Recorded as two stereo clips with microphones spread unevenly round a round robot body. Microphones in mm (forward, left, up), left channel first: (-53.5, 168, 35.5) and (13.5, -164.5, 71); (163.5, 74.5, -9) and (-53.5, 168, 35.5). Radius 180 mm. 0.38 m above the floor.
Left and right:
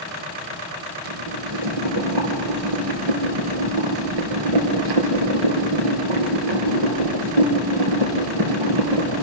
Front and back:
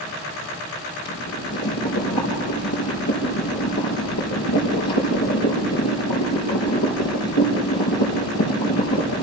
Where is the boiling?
65° right, 4 m.